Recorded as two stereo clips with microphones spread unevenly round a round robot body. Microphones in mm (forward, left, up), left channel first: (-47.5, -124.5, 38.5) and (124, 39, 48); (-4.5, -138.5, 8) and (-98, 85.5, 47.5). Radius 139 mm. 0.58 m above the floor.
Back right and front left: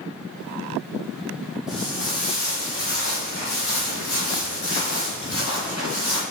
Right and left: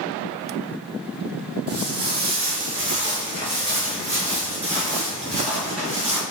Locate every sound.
1.7 s footsteps: 130° left, 0.8 m; by 6.2 s 175° left, 4 m